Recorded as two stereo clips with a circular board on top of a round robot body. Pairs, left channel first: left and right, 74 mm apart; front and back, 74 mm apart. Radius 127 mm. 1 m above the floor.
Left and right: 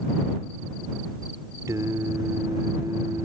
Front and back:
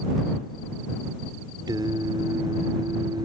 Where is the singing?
140° right.